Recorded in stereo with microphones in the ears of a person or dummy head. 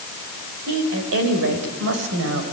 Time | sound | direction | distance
0.7 | a woman speaking | 75° right (ahead or behind) | 4 m